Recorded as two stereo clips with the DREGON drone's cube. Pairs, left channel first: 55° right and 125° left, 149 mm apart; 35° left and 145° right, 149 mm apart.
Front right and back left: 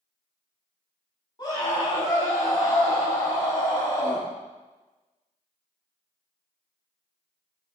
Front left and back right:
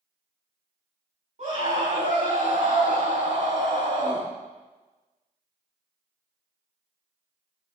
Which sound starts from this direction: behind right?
A scream, at 1.4 s.